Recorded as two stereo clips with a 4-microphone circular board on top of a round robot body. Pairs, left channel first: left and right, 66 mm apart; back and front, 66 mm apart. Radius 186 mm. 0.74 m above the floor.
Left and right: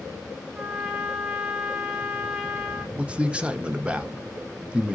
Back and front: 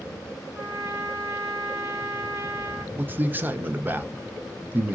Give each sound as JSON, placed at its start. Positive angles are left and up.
{"t": 0.6, "sound": "a trumpet", "azimuth_deg": -15, "distance_m": 1.1}
{"t": 3.0, "sound": "a man speaking", "azimuth_deg": -30, "distance_m": 0.6}